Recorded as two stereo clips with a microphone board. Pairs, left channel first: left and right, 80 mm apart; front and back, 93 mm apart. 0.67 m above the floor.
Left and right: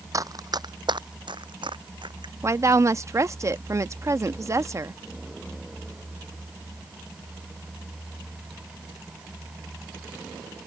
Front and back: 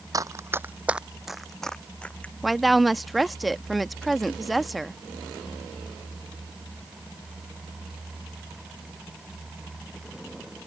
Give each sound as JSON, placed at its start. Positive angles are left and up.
{"t": 0.1, "sound": "running footsteps", "azimuth_deg": -135}
{"t": 2.4, "sound": "a woman speaking", "azimuth_deg": -90}